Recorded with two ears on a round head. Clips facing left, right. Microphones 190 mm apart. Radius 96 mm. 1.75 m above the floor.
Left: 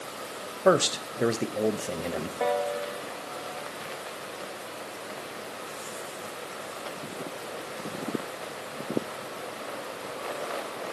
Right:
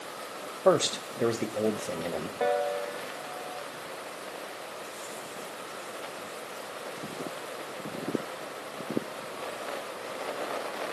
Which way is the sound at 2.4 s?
Centre (ahead or behind).